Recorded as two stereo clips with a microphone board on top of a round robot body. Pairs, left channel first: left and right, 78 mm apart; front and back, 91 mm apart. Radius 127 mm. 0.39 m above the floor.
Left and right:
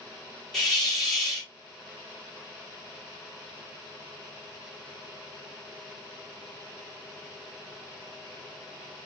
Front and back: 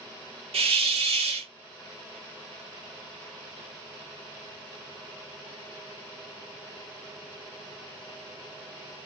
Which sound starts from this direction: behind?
A hiss, at 0.5 s.